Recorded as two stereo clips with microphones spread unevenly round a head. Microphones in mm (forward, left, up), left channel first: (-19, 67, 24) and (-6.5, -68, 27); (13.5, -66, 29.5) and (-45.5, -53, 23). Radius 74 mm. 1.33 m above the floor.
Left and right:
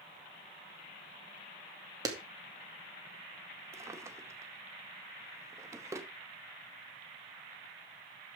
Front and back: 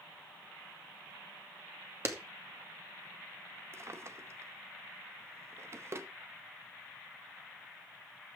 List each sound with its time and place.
2.0 s a clap: 150° right, 2.5 m
3.7 s a drawer: 150° right, 1.0 m